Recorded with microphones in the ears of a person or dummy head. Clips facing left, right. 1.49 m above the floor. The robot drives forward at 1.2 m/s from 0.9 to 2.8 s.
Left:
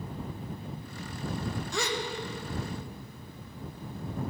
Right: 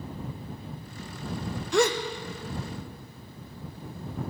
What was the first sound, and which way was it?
A gasp, 55° right (ahead or behind).